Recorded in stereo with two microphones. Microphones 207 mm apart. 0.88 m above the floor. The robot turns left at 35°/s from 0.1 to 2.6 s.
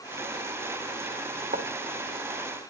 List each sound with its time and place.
1.5 s writing: 40° right (ahead or behind), 2.0 m